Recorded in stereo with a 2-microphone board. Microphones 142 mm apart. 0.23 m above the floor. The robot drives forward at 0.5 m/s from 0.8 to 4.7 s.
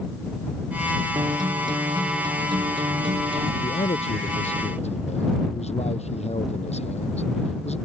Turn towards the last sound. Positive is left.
turn(degrees=50)  # may be behind; listen again after turning